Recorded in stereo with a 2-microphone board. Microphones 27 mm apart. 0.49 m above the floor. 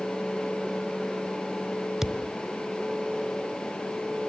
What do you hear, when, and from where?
2.0 s a thud: 15° right (ahead or behind), 0.9 m